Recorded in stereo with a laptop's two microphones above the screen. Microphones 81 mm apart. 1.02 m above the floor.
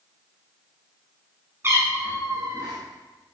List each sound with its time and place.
1.6 s a cat meowing: 35° right (ahead or behind), 1.4 m; by 2.8 s 55° right (ahead or behind), 2.5 m